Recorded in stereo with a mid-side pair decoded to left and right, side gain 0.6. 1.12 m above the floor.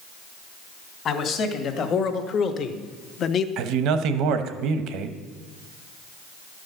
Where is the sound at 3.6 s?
65° right, 1.0 m.